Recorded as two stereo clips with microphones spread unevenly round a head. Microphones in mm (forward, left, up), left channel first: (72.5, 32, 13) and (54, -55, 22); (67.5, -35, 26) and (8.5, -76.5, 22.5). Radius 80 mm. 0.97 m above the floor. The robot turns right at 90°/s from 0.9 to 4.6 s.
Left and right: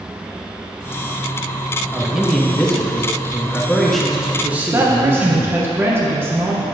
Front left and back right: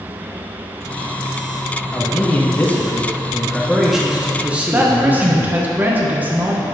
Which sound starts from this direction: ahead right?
A man speaking, at 1.9 s.